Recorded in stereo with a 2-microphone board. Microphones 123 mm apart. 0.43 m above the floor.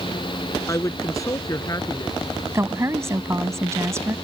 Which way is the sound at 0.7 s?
25° left (ahead or behind).